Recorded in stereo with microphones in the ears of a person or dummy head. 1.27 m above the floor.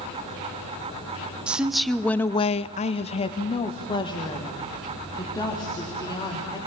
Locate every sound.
1.5 s a woman speaking: 5° right (ahead or behind), 1.1 m; by 6.6 s 20° left (ahead or behind), 4 m